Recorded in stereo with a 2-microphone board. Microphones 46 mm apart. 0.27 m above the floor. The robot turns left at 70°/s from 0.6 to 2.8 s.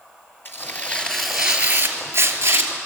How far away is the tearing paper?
About 3 m.